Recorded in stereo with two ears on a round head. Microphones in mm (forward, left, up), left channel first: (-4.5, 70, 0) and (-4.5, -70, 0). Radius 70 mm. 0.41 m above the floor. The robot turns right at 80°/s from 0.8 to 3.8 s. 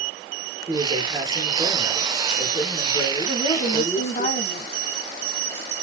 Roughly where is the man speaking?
Right.